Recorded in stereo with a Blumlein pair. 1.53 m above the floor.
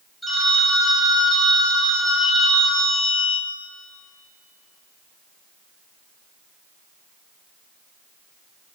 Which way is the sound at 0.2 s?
Straight ahead.